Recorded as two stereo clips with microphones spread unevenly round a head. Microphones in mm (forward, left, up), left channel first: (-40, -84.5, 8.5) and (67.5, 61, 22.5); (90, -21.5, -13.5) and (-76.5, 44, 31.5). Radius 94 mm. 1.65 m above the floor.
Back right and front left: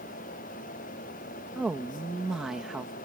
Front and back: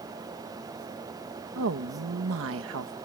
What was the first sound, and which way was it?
A woman speaking, 140° left.